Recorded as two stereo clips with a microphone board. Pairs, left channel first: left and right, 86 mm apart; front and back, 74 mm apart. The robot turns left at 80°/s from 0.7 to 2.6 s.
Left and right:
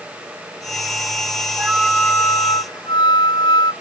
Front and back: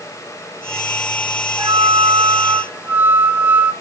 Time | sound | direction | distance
1.6 | a flute | 160° right | 0.9 m